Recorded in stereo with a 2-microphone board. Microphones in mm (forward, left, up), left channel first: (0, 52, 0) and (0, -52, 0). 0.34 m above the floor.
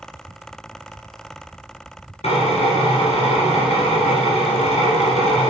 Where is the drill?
75° left (ahead or behind), 1.8 m.